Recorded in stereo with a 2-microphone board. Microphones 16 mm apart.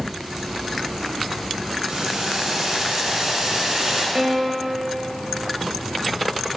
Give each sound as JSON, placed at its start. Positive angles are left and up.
{"t": 1.9, "sound": "boiling", "side_deg": -55, "distance_m": 2.5}
{"t": 4.2, "sound": "a piano", "side_deg": -40, "distance_m": 1.1}